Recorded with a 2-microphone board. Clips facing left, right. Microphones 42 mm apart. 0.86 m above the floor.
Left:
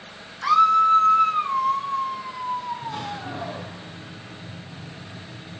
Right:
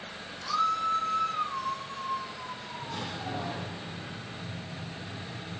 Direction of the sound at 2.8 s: 20° left (ahead or behind).